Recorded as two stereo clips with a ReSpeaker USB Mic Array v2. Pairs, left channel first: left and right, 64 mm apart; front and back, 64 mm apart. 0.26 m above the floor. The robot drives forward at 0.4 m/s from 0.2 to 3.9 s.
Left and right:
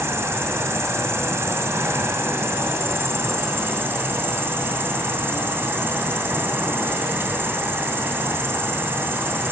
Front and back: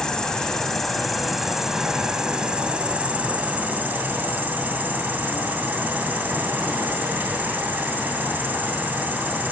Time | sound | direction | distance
0.0 | an insect | 75° right | 2 m